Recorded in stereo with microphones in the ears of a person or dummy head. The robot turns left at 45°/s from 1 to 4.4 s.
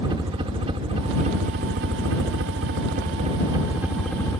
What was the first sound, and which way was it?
A helicopter, 25° right (ahead or behind).